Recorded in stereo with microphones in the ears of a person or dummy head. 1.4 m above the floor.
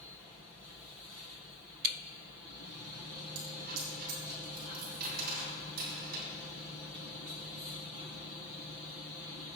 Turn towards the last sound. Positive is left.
turn(degrees=-55)  # may be behind; listen again after turning